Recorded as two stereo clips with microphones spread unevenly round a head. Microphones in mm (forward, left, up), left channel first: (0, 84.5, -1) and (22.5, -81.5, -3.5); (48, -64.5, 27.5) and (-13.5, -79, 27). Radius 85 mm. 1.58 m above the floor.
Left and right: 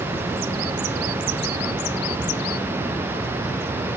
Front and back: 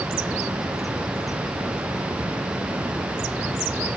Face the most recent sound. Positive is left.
No sound to turn to.